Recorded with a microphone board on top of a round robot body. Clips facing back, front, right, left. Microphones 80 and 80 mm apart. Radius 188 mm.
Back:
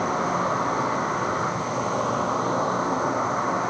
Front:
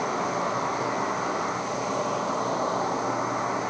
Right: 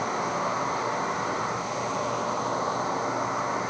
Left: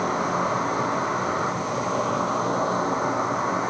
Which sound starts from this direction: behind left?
An insect, at 0.0 s.